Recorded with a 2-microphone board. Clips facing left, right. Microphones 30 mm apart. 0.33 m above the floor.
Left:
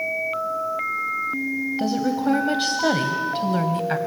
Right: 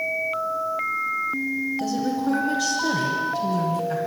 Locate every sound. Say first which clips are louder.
1.8 s a woman speaking: left 2 dB; 40° left (ahead or behind), 1.8 m; by 4.0 s 55° left (ahead or behind), 1.9 m